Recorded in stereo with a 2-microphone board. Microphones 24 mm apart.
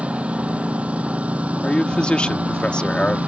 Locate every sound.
0.0 s a lawn mower: 60° right (ahead or behind); by 3.3 s 75° right (ahead or behind)
1.6 s a man speaking: 50° left (ahead or behind)